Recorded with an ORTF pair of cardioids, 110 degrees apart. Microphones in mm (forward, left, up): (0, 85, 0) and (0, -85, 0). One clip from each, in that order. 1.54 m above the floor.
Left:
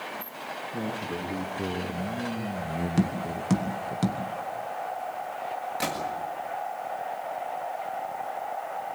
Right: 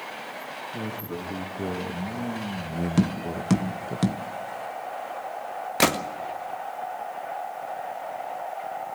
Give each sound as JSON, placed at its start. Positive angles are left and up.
{"t": 0.7, "sound": "a man speaking", "azimuth_deg": 5, "distance_m": 3.5}
{"t": 3.0, "sound": "tapping", "azimuth_deg": -20, "distance_m": 1.6}
{"t": 5.8, "sound": "a gunshot", "azimuth_deg": -65, "distance_m": 1.7}